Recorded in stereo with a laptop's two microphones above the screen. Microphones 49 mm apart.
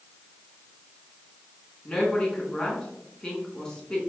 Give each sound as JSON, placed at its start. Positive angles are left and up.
{"t": 1.9, "sound": "a woman speaking", "side_deg": 25, "distance_m": 1.7}